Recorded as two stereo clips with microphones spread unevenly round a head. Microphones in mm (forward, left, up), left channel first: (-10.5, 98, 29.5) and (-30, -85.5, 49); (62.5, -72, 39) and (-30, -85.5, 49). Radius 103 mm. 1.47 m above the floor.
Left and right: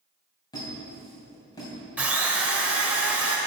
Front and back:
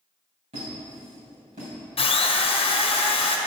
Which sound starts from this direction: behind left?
A squeak, at 0.5 s.